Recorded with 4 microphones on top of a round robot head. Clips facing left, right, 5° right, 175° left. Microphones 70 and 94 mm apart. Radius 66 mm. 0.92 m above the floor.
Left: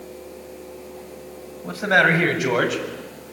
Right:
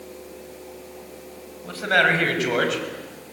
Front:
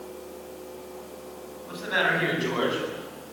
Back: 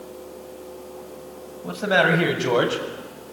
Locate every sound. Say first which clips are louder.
1.6 s a man speaking: left 2 dB, back 7 dB; 160° left, 6.5 m; by 2.8 s 175° left, 7 m